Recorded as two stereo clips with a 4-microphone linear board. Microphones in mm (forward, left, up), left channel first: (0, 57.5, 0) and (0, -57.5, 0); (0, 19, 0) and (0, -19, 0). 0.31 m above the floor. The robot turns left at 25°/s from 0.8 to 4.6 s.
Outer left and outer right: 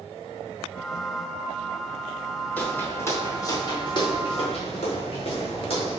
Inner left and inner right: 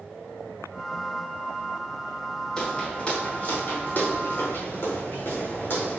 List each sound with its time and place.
2.6 s footsteps: 15° left (ahead or behind), 2.5 m; by 6.0 s 55° left (ahead or behind), 6.5 m